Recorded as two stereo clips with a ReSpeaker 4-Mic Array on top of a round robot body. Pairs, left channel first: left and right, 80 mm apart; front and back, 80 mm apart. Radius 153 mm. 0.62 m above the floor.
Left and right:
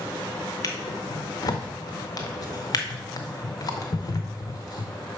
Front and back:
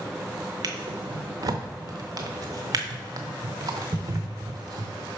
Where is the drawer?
135° left, 0.6 m.